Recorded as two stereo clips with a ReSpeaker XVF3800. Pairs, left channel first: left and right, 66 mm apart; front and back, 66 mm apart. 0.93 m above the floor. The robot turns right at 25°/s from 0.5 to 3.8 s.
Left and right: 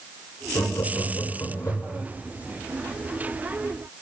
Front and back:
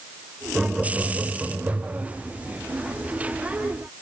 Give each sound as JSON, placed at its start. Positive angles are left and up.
{"t": 0.6, "sound": "laughter", "azimuth_deg": 95, "distance_m": 2.0}